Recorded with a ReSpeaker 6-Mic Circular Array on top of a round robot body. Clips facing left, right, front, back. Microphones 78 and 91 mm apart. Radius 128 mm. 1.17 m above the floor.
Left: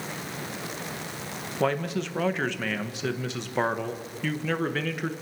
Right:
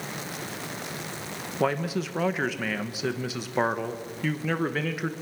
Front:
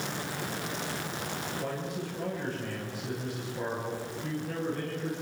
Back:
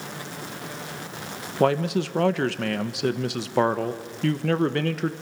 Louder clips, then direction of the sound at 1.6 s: Even, back 19 dB; 175° right.